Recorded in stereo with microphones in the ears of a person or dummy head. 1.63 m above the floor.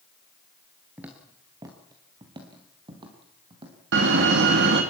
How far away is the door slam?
About 2 m.